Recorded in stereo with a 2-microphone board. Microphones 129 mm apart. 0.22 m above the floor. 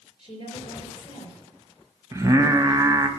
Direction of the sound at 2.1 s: 25° right (ahead or behind).